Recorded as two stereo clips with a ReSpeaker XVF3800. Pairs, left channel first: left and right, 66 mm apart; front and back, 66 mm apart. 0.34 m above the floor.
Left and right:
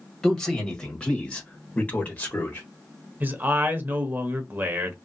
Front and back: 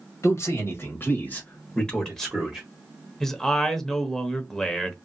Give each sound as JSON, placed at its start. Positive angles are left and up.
{"t": 0.2, "sound": "a man speaking", "azimuth_deg": 5, "distance_m": 1.8}
{"t": 3.2, "sound": "a man speaking", "azimuth_deg": -75, "distance_m": 0.9}